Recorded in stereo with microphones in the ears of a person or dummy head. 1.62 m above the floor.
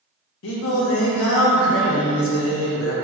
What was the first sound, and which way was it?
Singing, 75° left (ahead or behind).